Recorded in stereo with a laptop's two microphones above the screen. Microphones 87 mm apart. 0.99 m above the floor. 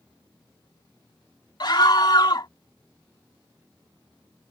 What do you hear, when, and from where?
1.6 s a scream: 50° left (ahead or behind)